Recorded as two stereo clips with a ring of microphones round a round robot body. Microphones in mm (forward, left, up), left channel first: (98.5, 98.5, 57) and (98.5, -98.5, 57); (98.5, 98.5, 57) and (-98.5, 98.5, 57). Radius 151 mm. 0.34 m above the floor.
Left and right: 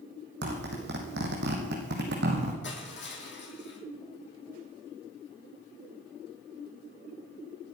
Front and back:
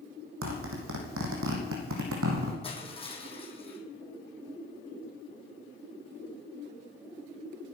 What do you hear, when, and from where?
0.4 s a zipper: 145° right, 3 m
2.6 s crushing: 60° left, 4.5 m